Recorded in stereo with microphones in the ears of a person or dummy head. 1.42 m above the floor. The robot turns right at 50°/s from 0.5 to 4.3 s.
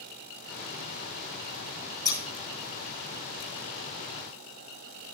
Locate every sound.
2.0 s scissors: 25° left (ahead or behind), 1.5 m; by 2.2 s 20° left (ahead or behind), 1.5 m